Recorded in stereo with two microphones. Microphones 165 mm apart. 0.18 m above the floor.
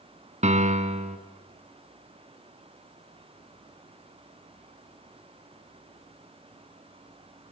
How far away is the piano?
About 1.3 m.